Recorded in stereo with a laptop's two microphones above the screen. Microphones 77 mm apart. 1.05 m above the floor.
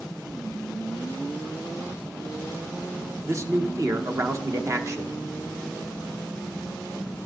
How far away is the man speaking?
About 0.7 m.